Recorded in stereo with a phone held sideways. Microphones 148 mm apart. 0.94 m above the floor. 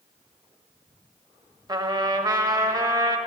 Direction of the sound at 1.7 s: 30° right (ahead or behind).